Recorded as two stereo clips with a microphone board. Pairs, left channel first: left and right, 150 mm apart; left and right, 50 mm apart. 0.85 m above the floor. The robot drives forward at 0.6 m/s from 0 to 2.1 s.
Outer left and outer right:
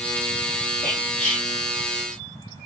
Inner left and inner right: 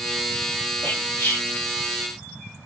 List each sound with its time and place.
0.8 s whispering: 60° left (ahead or behind), 2.0 m; by 1.5 s 55° left (ahead or behind), 2 m